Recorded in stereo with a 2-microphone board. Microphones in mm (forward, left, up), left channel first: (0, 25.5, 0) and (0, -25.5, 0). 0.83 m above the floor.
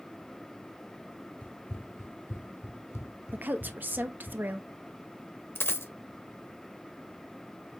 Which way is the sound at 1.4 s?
35° left (ahead or behind).